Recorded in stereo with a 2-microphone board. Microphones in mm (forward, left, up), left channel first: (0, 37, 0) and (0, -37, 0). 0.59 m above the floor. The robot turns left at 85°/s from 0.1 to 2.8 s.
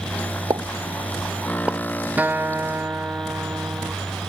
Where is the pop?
65° right (ahead or behind); by 1.8 s 5° right (ahead or behind).